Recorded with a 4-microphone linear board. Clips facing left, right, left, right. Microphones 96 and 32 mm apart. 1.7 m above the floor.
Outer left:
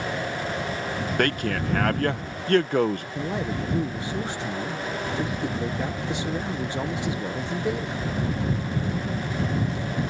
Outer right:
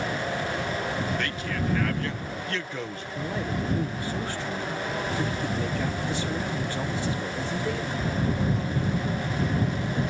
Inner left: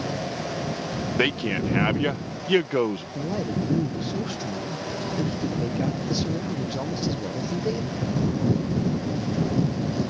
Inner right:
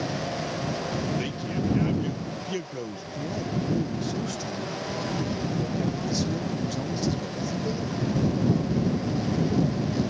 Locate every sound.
1.2 s a man speaking: 55° left (ahead or behind)
3.1 s a man speaking: 20° left (ahead or behind)